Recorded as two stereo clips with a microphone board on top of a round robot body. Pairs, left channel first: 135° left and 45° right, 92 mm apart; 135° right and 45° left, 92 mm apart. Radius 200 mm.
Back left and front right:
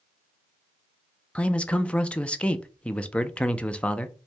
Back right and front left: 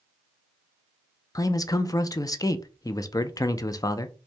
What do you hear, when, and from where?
1.4 s a man speaking: 155° right, 0.6 m